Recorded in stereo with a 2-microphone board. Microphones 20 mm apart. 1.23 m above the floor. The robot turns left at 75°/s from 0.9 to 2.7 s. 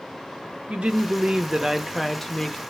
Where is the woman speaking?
100° right, 0.6 m; by 2.6 s 135° left, 0.6 m.